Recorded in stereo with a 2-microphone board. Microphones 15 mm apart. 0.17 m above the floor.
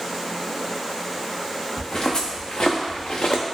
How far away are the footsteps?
About 0.9 m.